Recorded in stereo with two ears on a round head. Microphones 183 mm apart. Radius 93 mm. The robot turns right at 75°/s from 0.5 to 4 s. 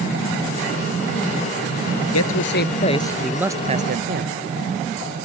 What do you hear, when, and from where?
2.1 s a man speaking: 90° left; by 4.3 s 125° right